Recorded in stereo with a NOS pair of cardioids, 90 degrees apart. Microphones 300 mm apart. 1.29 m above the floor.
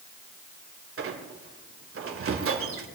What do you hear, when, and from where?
1.0 s a squeak: 45° right, 2.5 m